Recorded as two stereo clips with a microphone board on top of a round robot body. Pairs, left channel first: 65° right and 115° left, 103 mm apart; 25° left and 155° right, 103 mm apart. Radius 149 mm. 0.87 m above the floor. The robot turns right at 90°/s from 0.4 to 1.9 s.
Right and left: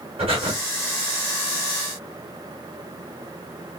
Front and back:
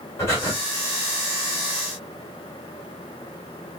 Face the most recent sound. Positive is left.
turn(degrees=-140)